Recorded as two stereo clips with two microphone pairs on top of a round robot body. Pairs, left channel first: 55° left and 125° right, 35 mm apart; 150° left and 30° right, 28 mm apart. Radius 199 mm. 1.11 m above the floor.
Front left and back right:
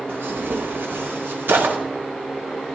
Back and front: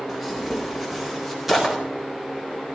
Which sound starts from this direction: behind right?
Tearing paper, at 0.1 s.